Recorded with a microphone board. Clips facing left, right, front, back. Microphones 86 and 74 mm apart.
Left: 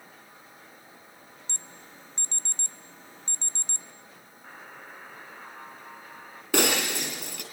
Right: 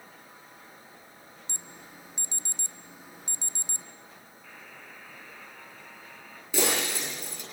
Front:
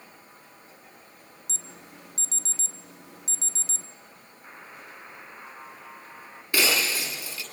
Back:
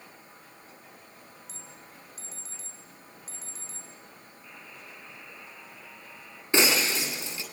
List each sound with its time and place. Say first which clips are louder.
1.5 s an alarm: right 1 dB, front 3 dB; 10° right, 1.1 m
4.4 s a buzzer: left 5 dB, front 4 dB; 40° left, 2.5 m
6.5 s breaking glass: left 3 dB, back 1 dB; 110° left, 8.5 m